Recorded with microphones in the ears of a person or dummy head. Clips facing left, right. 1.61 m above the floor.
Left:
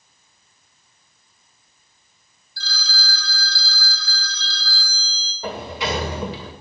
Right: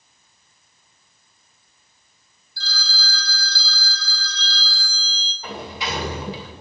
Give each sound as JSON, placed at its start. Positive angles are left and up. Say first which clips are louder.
{"t": 2.6, "sound": "a phone ringing", "louder": "left 1 dB", "side_deg": 60, "distance_m": 5.0}
{"t": 5.4, "sound": "a sliding door", "louder": "left 4 dB", "side_deg": 55, "distance_m": 3.0}